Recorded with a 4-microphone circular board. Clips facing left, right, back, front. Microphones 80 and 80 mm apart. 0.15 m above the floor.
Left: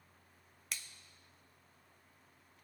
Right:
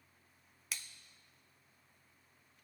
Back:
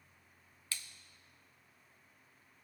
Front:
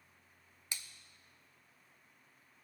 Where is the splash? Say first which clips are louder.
Even, back 1 dB; 5° right, 0.7 m.